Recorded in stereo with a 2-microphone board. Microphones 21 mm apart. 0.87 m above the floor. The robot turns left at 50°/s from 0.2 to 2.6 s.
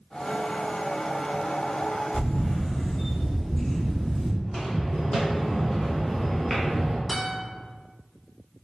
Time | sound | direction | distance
2.1 | a camera shutter | 70° left (ahead or behind) | 1.4 m
4.4 | footsteps | 50° left (ahead or behind) | 2.0 m
7.1 | a guitar | 15° left (ahead or behind) | 1.6 m